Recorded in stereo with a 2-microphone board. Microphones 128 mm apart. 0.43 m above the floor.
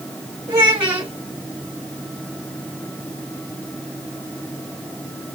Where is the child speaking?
25° right (ahead or behind), 1.7 m.